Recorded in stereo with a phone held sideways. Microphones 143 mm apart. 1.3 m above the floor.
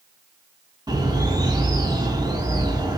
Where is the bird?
25° right (ahead or behind), 7 m.